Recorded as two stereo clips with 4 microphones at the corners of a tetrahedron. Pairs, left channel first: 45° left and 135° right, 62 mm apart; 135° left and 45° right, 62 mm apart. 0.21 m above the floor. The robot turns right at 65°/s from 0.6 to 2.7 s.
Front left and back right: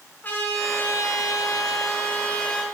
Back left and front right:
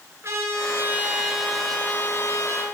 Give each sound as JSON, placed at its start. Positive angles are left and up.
{"t": 0.2, "sound": "a trumpet", "azimuth_deg": -15, "distance_m": 2.5}